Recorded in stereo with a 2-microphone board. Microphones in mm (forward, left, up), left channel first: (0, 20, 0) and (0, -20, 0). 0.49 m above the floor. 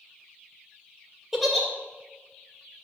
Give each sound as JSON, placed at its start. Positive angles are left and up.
{"t": 1.3, "sound": "a giggle", "side_deg": 0, "distance_m": 2.0}